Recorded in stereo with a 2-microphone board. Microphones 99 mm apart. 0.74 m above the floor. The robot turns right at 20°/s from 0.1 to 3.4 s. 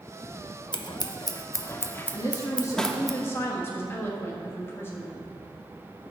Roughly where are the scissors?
Left.